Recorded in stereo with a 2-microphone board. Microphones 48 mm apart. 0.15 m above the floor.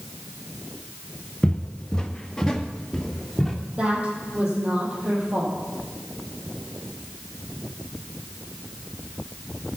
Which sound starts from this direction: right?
A woman speaking, at 3.8 s.